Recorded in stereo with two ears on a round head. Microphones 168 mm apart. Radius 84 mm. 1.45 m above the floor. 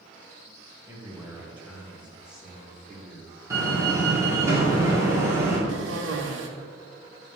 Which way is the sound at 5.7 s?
75° right (ahead or behind).